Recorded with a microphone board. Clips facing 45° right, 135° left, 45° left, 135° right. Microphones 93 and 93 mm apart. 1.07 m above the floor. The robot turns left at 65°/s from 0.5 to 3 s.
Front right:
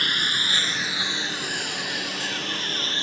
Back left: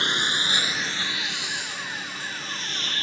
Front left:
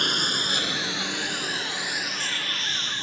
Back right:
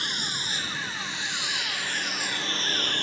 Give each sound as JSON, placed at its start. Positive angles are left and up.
{"t": 0.0, "sound": "a lawn mower", "azimuth_deg": 70}